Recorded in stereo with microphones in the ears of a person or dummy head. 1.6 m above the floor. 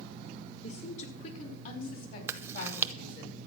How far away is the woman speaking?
About 4.5 m.